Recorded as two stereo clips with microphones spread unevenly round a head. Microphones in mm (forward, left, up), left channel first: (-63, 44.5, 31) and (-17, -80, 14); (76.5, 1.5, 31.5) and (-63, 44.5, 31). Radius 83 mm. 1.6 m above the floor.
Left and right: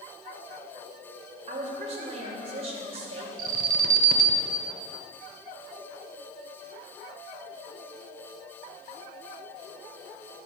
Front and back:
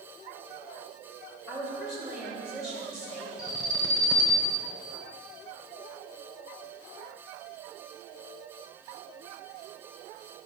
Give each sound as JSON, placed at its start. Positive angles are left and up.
{"t": 1.5, "sound": "a woman speaking", "azimuth_deg": -110, "distance_m": 2.5}
{"t": 3.4, "sound": "an alarm", "azimuth_deg": -90, "distance_m": 1.0}